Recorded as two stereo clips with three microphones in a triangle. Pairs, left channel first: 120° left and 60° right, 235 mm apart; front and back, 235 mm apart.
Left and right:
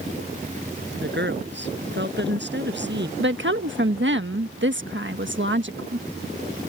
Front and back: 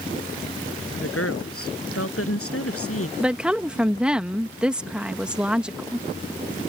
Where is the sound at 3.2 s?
95° right.